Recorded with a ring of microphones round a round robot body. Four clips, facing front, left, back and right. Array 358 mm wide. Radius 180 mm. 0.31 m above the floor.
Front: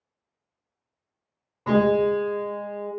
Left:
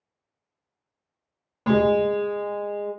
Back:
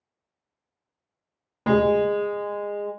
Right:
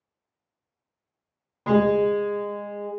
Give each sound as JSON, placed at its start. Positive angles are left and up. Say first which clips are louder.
{"t": 1.7, "sound": "a piano", "louder": "even, even", "azimuth_deg": 175, "distance_m": 0.7}